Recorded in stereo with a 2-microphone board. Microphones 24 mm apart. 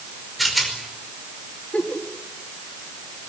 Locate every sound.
0.4 s a rattle: centre (ahead or behind), 5 m
1.7 s a giggle: 70° left (ahead or behind), 3.5 m